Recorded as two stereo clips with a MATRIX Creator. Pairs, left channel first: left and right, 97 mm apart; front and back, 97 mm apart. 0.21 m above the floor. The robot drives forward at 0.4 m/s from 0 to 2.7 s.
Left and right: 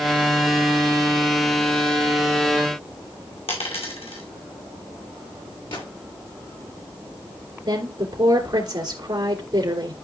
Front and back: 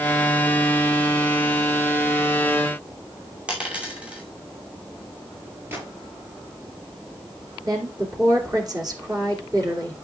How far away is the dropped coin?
About 2.5 m.